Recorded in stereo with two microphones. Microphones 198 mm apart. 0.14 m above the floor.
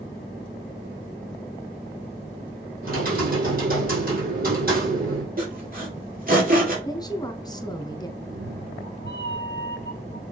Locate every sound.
2.8 s typing on a keyboard: 50° right (ahead or behind), 4.5 m
5.4 s sawing: 45° right (ahead or behind), 3.5 m
6.8 s a woman speaking: 20° left (ahead or behind), 1.1 m
8.2 s a cat meowing: 70° right (ahead or behind), 2 m